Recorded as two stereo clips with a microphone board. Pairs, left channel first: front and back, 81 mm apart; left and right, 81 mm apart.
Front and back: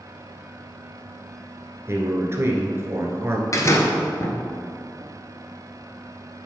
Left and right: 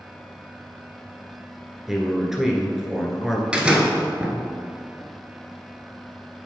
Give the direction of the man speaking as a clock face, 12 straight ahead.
6 o'clock.